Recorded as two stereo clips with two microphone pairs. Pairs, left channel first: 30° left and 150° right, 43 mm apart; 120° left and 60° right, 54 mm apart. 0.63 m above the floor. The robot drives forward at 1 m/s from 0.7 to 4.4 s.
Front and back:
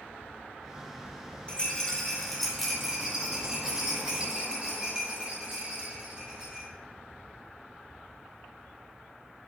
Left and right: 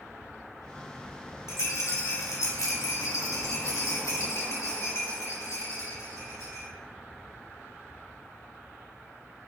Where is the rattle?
90° left, 2 m; by 6.7 s 145° left, 3.5 m.